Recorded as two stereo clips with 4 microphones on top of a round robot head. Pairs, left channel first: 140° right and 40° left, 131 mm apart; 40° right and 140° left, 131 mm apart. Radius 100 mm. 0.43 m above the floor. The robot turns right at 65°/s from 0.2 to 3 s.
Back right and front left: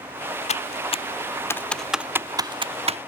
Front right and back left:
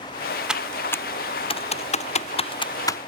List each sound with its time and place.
0.5 s typing on a keyboard: 140° right; by 3.0 s 25° left